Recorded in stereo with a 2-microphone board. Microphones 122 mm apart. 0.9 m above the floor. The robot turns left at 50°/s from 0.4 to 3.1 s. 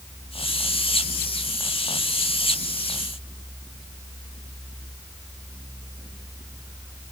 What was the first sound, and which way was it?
Only background noise.